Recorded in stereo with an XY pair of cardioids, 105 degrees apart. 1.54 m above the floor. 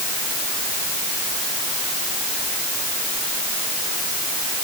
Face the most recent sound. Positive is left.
No sound to turn to.